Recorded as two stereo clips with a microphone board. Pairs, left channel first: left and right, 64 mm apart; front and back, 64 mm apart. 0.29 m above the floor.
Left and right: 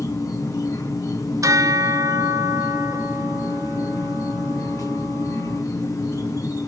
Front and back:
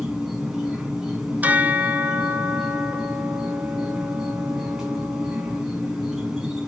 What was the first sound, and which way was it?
An insect, 100° left.